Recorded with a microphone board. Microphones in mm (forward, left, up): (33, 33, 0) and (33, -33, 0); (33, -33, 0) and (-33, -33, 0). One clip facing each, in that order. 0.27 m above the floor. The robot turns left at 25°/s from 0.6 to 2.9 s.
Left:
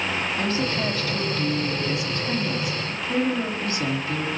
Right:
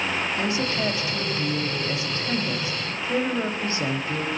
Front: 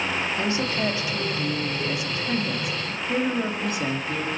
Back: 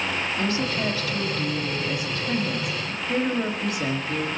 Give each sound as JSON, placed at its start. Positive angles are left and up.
{"t": 0.4, "sound": "a woman speaking", "azimuth_deg": -35, "distance_m": 1.3}